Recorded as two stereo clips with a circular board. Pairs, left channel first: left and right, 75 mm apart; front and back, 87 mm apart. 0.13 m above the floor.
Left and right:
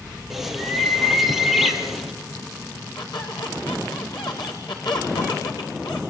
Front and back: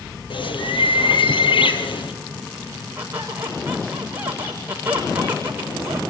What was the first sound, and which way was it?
A bird, 5° right.